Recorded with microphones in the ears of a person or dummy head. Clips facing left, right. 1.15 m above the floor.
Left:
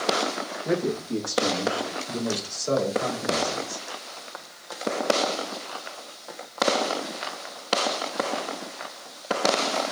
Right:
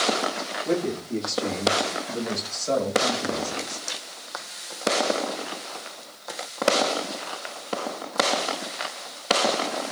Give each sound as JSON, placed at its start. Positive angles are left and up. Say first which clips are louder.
{"t": 0.7, "sound": "a man speaking", "louder": "even", "side_deg": 25, "distance_m": 0.9}